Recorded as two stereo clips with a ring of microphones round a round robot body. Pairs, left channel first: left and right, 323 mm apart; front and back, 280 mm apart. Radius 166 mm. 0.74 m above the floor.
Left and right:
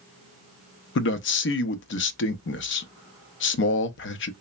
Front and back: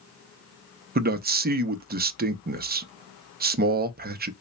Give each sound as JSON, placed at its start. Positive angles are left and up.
{"t": 0.9, "sound": "a man speaking", "azimuth_deg": 130, "distance_m": 0.6}